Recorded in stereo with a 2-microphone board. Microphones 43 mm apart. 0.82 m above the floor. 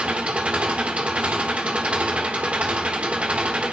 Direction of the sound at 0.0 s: 30° right (ahead or behind).